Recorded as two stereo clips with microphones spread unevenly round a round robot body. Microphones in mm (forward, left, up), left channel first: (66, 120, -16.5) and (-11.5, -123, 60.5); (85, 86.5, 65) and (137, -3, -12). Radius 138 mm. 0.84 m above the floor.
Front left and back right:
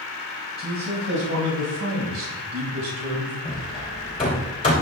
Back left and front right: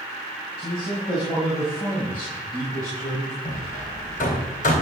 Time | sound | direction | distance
0.6 | a man speaking | 165° right | 5 m
3.5 | hammering | 140° left | 3.5 m